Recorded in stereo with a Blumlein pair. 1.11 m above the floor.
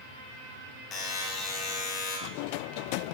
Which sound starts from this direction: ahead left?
A buzzer, at 0.9 s.